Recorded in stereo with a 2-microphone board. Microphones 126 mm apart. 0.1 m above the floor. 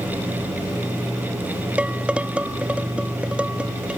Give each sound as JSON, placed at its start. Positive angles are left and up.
{"t": 1.8, "sound": "dishes clattering", "side_deg": -10}